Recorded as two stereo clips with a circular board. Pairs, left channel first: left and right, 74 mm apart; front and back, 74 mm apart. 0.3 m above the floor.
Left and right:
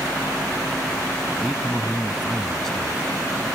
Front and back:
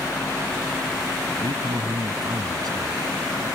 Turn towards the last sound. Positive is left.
turn(degrees=170)